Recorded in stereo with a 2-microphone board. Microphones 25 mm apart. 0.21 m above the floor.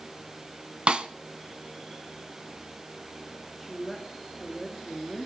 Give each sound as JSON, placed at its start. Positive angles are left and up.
{"t": 0.9, "sound": "a snare drum", "side_deg": -45, "distance_m": 0.9}
{"t": 3.6, "sound": "a woman speaking", "side_deg": 5, "distance_m": 3.5}